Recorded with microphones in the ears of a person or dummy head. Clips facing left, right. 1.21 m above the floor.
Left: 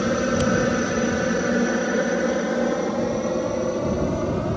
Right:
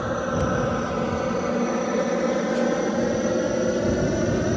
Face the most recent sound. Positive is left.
turn(degrees=-20)  # may be behind; listen again after turning